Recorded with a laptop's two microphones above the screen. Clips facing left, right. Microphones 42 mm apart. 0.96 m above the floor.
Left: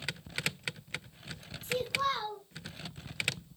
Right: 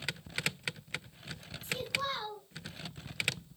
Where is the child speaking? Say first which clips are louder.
Left 4 dB; 60° left (ahead or behind), 1.7 m.